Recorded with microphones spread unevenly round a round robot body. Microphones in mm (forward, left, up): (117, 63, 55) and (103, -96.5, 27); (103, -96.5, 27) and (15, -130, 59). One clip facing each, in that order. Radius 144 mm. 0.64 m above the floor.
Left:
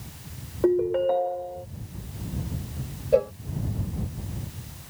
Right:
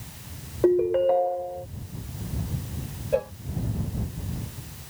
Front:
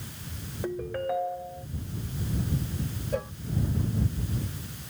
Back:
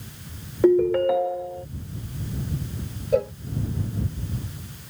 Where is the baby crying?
No baby crying in this recording.